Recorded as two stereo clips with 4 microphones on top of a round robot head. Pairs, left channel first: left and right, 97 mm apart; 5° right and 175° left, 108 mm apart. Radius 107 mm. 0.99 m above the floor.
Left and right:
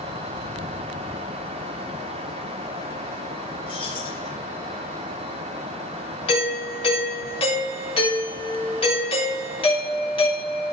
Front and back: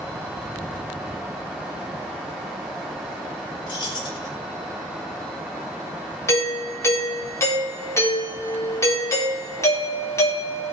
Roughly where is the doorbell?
Ahead left.